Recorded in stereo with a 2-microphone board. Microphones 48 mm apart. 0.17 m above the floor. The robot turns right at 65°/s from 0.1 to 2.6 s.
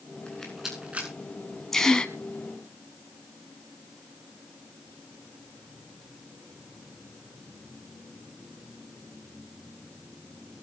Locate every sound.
0.3 s a rattle: 20° left (ahead or behind), 8.5 m; by 1.1 s 35° right (ahead or behind), 8.5 m
1.7 s a gasp: 10° left (ahead or behind), 1.6 m; by 2.1 s 20° left (ahead or behind), 1.6 m